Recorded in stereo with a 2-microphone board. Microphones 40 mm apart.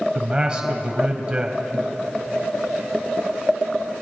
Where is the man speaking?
25° right (ahead or behind), 1.0 m.